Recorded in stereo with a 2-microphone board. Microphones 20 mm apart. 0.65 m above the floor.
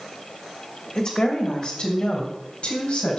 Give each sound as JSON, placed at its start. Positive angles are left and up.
{"t": 0.9, "sound": "a woman speaking", "side_deg": 50, "distance_m": 2.5}